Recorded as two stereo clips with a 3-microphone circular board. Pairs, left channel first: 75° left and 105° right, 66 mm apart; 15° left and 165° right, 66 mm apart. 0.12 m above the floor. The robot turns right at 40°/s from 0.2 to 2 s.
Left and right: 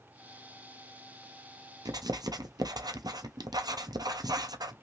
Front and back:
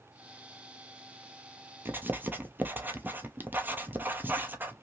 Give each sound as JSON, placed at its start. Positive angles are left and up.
{"t": 1.9, "sound": "writing", "azimuth_deg": -110, "distance_m": 0.6}